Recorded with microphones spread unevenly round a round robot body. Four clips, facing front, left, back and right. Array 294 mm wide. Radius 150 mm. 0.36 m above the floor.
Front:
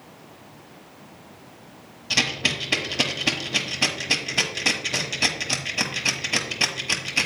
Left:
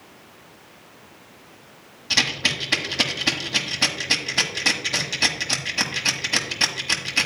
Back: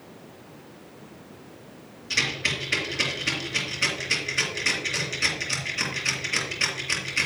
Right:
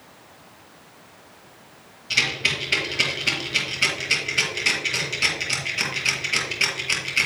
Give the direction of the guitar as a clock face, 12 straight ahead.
I don't hear a guitar.